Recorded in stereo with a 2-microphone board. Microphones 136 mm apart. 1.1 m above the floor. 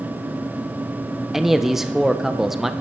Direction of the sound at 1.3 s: Centre (ahead or behind).